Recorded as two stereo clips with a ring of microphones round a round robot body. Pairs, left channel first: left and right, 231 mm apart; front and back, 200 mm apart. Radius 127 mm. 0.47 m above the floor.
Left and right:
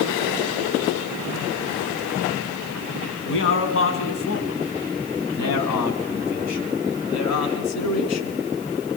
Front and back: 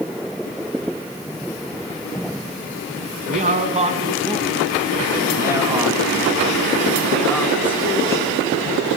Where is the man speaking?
130° left, 5 m; by 8.4 s 75° left, 6 m.